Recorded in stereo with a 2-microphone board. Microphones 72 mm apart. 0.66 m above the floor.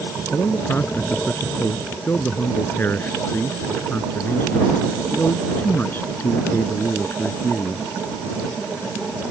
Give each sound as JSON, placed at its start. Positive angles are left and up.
{"t": 0.3, "sound": "a man speaking", "side_deg": 30}